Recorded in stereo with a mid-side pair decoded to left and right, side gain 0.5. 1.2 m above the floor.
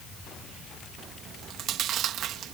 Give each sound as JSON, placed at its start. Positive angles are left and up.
{"t": 1.2, "sound": "chewing", "azimuth_deg": -70}